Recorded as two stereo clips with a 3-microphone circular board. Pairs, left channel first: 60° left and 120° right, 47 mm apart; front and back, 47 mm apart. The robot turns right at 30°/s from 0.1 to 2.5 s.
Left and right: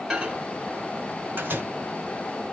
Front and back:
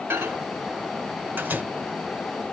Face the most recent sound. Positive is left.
turn(degrees=-125)